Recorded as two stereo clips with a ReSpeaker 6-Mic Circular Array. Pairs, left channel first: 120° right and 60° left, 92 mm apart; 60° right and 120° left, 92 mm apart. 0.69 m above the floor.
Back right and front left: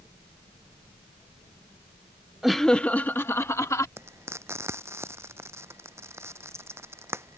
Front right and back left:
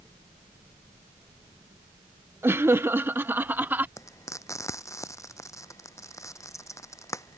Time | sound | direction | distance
2.4 | laughter | 145° left | ?
4.0 | frying | 5° right | ?